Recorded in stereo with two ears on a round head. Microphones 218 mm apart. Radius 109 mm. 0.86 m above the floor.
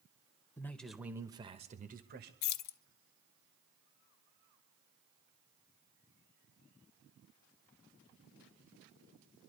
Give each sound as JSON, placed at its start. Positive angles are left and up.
{"t": 0.6, "sound": "a man speaking", "side_deg": 10, "distance_m": 0.9}
{"t": 2.4, "sound": "keys jangling", "side_deg": 70, "distance_m": 0.5}